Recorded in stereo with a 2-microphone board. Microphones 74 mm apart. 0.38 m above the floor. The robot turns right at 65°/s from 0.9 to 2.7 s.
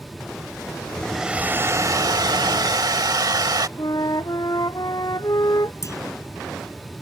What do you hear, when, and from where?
1.0 s a hair dryer: straight behind; by 3.7 s 70° right
3.8 s a flute: 60° left (ahead or behind)
5.8 s a clunk: 45° left (ahead or behind)